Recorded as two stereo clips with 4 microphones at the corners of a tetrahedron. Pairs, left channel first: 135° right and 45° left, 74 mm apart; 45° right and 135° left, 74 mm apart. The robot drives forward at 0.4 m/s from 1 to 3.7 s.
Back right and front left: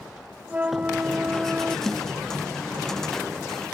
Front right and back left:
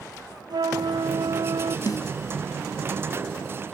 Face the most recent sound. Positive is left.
turn(degrees=-80)